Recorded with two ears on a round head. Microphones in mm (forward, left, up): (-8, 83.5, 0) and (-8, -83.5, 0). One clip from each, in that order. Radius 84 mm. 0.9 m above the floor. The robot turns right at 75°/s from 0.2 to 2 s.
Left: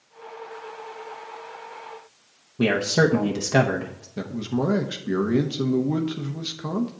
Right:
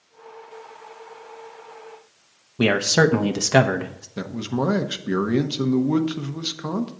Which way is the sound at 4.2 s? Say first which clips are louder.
Right 1 dB; 25° right (ahead or behind).